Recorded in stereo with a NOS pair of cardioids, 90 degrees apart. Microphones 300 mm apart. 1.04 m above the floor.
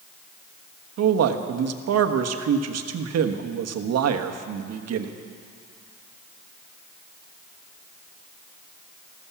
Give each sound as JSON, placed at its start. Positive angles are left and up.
{"t": 1.0, "sound": "a man speaking", "azimuth_deg": -60, "distance_m": 1.2}